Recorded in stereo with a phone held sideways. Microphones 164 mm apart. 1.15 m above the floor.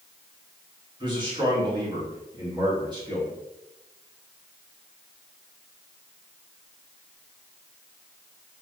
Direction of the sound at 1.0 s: 30° right (ahead or behind).